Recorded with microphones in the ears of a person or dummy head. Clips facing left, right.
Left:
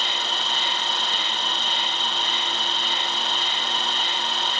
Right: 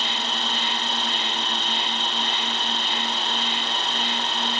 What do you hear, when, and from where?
0.0 s an insect: 80° left